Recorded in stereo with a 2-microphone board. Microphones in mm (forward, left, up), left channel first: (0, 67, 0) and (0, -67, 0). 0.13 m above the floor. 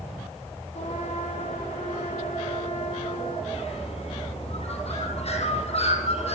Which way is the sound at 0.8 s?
55° left (ahead or behind).